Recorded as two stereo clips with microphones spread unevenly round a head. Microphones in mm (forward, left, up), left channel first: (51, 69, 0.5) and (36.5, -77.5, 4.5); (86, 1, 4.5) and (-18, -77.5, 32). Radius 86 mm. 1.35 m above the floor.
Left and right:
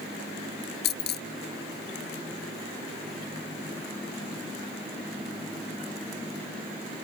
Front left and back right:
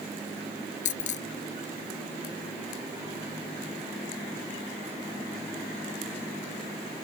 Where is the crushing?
I don't hear crushing.